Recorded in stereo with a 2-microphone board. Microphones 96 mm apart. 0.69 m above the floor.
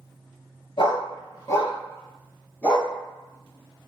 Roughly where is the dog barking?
Left.